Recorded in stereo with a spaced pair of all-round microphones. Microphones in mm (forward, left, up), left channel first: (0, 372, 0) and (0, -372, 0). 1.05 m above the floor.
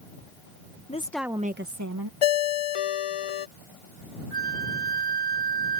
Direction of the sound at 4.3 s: 80° left.